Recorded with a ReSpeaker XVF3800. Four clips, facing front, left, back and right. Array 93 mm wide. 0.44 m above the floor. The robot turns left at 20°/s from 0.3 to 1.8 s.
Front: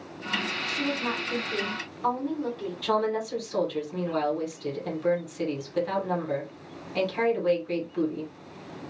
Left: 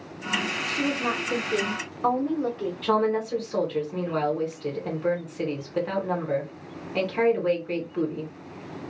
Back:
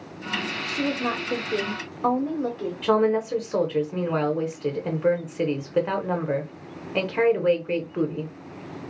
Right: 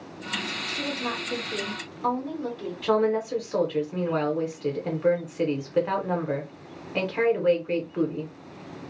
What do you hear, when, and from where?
0.7 s a woman speaking: 150° left, 1.1 m; by 2.7 s 130° left, 1.1 m
2.8 s a woman speaking: 165° right, 1.0 m